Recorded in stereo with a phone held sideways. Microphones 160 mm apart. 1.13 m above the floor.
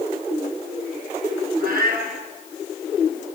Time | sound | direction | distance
1.6 | a cat meowing | 70° right (ahead or behind) | 5 m